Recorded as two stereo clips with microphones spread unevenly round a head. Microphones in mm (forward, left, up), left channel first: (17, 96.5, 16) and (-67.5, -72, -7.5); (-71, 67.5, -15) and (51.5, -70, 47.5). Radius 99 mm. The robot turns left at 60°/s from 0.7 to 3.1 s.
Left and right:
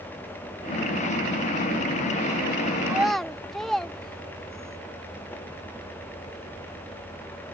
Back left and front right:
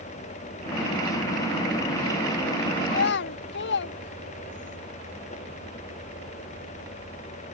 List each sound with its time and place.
2.9 s a child speaking: 165° left; by 4.8 s 155° left